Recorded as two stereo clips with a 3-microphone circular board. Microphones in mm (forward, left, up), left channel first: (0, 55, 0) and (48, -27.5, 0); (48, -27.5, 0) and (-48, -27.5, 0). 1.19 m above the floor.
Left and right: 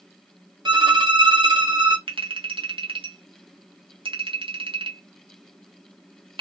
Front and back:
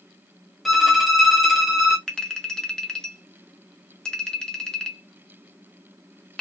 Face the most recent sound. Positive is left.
turn(degrees=-85)